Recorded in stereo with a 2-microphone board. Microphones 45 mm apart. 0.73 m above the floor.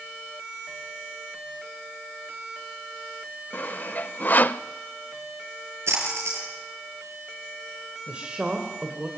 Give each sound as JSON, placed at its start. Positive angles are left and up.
{"t": 3.5, "sound": "sawing", "side_deg": 45, "distance_m": 0.6}
{"t": 5.9, "sound": "a splash", "side_deg": -75, "distance_m": 6.5}
{"t": 8.1, "sound": "a woman speaking", "side_deg": -25, "distance_m": 2.5}